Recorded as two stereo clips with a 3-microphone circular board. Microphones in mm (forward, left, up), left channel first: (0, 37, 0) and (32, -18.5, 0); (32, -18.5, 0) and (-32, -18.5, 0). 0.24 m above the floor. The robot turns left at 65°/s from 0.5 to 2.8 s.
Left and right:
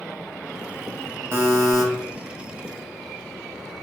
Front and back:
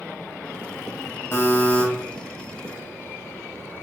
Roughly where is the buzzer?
Ahead right.